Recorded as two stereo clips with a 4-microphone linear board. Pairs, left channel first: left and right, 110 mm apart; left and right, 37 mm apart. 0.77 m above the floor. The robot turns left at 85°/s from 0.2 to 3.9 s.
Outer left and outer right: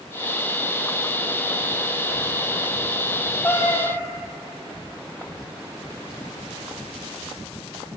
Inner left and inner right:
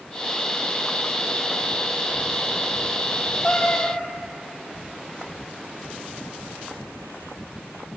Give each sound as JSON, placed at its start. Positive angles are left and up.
{"t": 3.4, "sound": "a cat meowing", "azimuth_deg": 165, "distance_m": 3.0}